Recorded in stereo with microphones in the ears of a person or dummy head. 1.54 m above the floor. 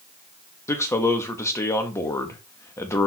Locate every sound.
0.7 s a man speaking: 15° left (ahead or behind), 0.8 m